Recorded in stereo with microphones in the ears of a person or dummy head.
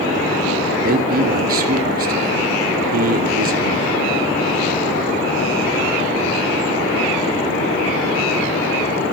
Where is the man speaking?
50° right (ahead or behind), 1.3 m.